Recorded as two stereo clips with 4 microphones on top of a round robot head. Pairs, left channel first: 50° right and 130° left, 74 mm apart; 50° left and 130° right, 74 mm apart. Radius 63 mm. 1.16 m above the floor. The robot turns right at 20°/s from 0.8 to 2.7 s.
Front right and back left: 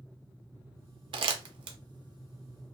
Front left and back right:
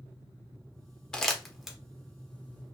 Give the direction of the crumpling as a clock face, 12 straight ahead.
8 o'clock.